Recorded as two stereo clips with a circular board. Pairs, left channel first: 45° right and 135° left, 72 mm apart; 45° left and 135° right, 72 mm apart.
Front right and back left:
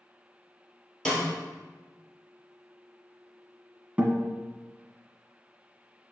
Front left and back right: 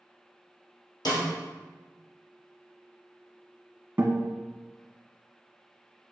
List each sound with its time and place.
1.1 s a snare drum: 40° left, 2.0 m
4.0 s a guitar: 175° right, 1.1 m